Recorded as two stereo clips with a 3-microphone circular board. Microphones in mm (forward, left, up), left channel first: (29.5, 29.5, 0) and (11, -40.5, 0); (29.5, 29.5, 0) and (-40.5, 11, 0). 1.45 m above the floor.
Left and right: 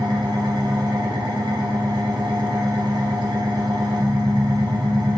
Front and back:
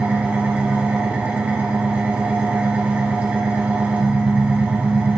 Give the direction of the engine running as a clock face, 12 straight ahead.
3 o'clock.